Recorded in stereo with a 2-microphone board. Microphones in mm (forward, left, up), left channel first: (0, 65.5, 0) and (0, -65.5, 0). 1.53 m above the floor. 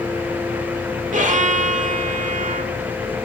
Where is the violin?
75° right (ahead or behind), 0.7 m.